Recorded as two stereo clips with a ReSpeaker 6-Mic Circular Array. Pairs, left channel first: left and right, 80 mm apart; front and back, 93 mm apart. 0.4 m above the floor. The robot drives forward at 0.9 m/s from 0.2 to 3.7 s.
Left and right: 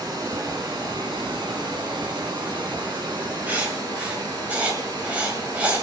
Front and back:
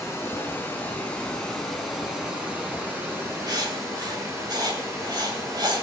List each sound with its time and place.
0.0 s running water: 65° right, 3 m; by 5.8 s 120° right, 3.5 m
3.5 s writing: 155° right, 1.9 m